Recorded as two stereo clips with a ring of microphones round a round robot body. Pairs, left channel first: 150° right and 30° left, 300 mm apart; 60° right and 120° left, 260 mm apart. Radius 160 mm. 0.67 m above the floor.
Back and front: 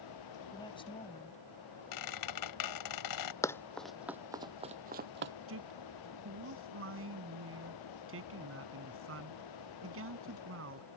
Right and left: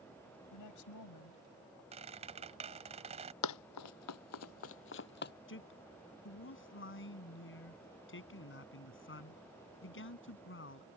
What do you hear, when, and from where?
0.5 s a woman speaking: 75° right; by 1.8 s 85° right
1.9 s a squeak: 170° right
3.4 s running footsteps: 70° right; by 5.3 s 15° right
5.5 s a man speaking: 20° right